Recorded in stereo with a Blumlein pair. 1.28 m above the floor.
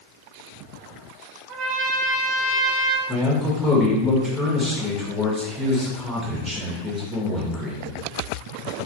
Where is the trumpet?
30° right, 1.2 m.